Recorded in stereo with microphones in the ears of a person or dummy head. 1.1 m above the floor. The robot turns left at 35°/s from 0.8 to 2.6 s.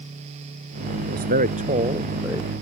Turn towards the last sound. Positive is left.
turn(degrees=175)